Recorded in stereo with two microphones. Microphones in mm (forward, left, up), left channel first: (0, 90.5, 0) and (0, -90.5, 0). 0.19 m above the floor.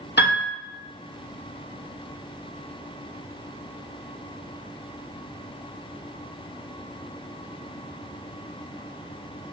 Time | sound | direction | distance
0.2 | a piano | 70° left (ahead or behind) | 1.4 m